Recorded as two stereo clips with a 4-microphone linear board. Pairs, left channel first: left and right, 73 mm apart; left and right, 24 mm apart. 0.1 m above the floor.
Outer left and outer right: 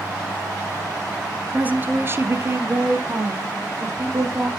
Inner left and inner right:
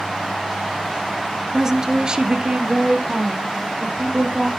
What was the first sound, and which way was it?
A woman speaking, 20° right (ahead or behind).